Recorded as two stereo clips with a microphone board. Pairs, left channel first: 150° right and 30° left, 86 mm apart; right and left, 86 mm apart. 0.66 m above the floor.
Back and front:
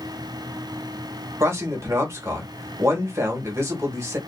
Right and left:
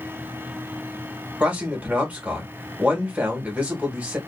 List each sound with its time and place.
1.4 s a man speaking: 30° left, 1.1 m